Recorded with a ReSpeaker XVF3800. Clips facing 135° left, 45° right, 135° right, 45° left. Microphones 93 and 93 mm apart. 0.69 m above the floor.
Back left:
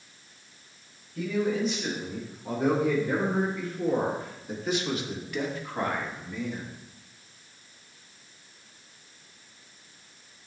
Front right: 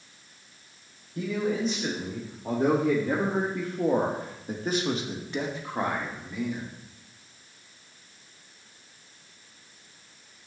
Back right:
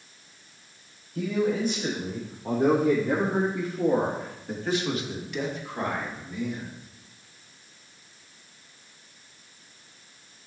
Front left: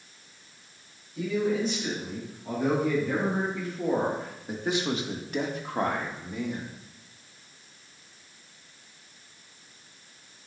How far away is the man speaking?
About 2.5 m.